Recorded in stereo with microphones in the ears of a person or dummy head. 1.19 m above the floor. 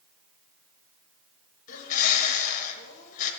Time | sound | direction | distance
1.7 | a bird | 40° left (ahead or behind) | 1.2 m